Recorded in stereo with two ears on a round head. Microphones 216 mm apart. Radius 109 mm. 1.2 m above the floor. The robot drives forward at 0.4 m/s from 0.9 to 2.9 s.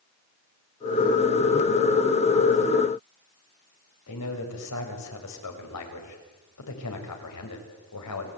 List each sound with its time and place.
4.1 s a man speaking: 85° left, 6 m